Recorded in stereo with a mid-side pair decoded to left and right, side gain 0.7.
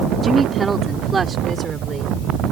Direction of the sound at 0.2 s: 15° right.